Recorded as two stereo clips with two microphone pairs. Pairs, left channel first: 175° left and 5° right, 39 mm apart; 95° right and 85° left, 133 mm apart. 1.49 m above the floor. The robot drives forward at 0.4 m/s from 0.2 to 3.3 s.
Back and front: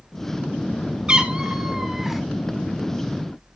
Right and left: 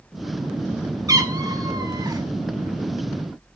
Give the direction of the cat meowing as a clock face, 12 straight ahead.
11 o'clock.